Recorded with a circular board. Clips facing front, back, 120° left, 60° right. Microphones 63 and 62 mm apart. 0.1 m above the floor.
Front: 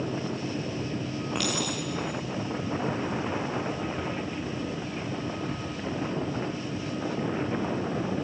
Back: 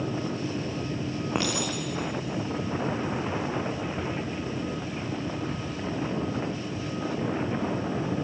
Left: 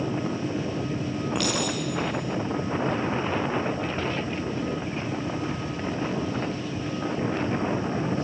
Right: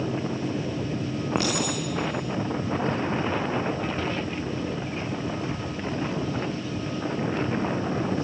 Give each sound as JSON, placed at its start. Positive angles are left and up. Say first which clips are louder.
{"t": 1.4, "sound": "a clink", "louder": "back 1 dB, right 2 dB", "azimuth_deg": -115, "distance_m": 5.0}